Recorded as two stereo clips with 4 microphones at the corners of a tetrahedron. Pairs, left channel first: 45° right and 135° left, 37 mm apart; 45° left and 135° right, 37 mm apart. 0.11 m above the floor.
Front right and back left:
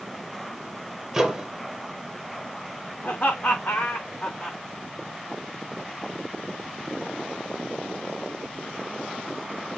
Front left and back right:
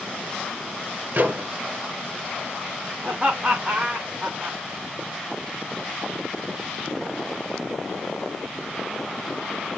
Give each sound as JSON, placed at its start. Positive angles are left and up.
{"t": 1.1, "sound": "a microwave", "azimuth_deg": -145, "distance_m": 2.5}
{"t": 3.0, "sound": "laughter", "azimuth_deg": -80, "distance_m": 6.5}